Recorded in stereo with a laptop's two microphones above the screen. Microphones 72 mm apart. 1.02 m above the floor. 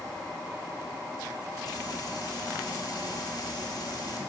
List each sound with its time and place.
1.6 s frying: 65° left (ahead or behind), 1.4 m